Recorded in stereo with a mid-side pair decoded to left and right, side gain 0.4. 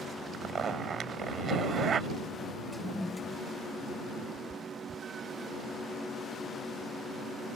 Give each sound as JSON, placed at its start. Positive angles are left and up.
{"t": 0.3, "sound": "a zipper", "azimuth_deg": -55}
{"t": 2.7, "sound": "a toilet flushing", "azimuth_deg": 15}
{"t": 4.3, "sound": "a cat meowing", "azimuth_deg": -40}